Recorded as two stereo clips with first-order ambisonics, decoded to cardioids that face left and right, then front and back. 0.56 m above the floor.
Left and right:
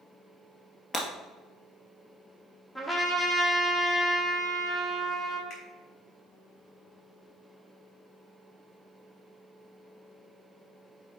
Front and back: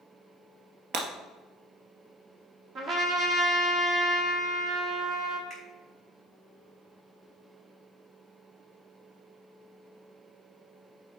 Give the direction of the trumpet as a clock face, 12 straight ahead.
6 o'clock.